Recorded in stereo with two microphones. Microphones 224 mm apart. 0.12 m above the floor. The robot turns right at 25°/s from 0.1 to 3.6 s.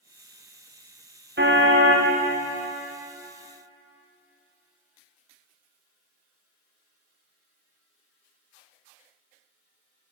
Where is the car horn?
55° right (ahead or behind), 6.5 m; by 2.1 s 70° right (ahead or behind), 6.5 m.